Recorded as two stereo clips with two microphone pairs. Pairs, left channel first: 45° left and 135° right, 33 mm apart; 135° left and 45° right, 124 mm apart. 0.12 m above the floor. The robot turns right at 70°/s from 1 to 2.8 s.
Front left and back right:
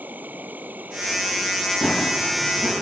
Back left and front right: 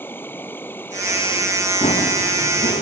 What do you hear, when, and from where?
0.0 s an insect: 150° right; by 2.8 s 25° right
1.8 s running footsteps: 90° left; by 2.8 s 165° left